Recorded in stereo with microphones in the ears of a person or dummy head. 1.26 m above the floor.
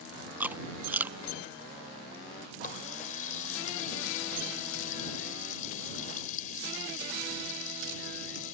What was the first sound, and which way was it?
Chewing, 10° right (ahead or behind).